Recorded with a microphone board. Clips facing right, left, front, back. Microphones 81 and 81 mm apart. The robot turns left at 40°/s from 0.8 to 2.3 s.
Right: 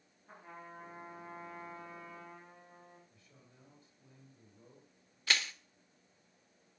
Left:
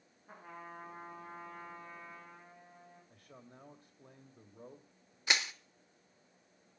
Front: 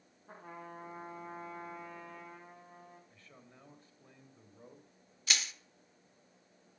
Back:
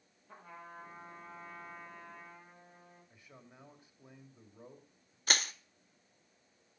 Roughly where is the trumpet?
Ahead.